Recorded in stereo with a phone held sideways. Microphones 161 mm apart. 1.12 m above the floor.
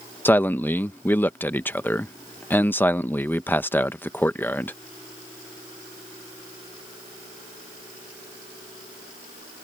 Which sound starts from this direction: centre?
A man speaking, at 0.2 s.